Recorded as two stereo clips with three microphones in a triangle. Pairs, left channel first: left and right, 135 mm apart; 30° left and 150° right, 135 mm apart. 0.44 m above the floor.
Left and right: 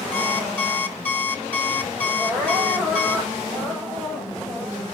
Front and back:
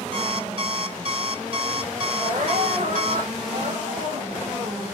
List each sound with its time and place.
0.1 s an alarm clock: 165° left, 2 m
2.2 s crying: 170° right, 7 m